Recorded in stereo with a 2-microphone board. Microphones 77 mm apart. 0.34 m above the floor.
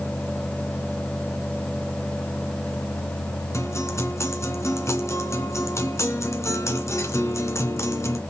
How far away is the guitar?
About 2 m.